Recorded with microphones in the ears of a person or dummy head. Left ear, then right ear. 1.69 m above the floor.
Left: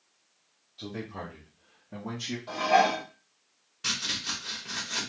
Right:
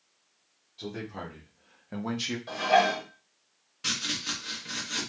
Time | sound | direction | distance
0.8 | a man speaking | 5° left (ahead or behind) | 0.9 m
2.5 | dishes clattering | 15° right (ahead or behind) | 1.8 m
3.8 | chopping | 5° right (ahead or behind) | 1.2 m